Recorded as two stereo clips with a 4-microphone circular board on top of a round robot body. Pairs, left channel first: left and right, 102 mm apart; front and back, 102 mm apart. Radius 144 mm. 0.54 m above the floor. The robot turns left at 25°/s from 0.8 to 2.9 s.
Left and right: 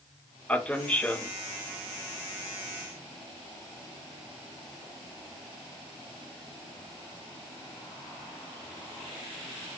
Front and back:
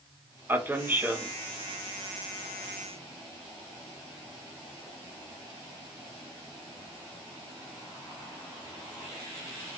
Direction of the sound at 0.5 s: 150° left.